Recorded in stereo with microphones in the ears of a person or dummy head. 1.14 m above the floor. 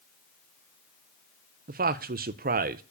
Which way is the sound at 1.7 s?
45° right (ahead or behind).